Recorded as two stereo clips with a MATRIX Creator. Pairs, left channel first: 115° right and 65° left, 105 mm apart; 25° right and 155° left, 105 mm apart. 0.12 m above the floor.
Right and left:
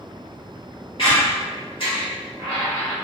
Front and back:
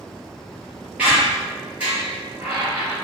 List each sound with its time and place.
1.0 s a squeak: 130° right, 1.7 m